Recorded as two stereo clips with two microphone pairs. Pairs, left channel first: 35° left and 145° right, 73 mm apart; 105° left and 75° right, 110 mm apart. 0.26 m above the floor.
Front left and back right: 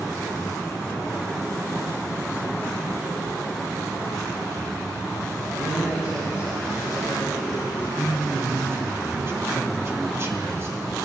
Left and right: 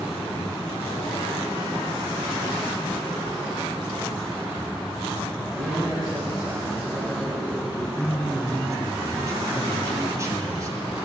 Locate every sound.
5.5 s a man speaking: 80° right, 3 m
8.0 s a man speaking: 120° right, 1.8 m